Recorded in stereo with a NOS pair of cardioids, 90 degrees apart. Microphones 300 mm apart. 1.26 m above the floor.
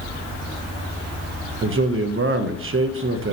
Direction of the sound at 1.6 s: 45° right.